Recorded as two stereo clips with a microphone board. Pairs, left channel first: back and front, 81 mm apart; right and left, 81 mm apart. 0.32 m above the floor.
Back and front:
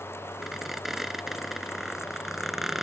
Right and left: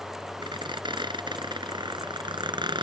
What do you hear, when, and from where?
0.4 s a squeak: 85° left